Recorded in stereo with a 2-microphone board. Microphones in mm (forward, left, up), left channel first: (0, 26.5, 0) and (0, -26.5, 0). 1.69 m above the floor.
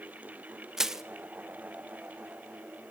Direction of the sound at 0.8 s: 5° right (ahead or behind).